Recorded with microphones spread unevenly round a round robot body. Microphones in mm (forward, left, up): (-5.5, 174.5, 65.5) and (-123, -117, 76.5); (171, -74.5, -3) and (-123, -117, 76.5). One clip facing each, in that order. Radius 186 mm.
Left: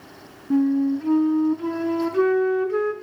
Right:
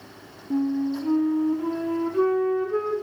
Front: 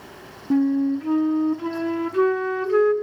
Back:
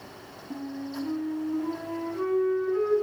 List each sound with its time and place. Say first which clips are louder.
0.5 s a flute: left 5 dB, front 16 dB; 5° left, 1.1 m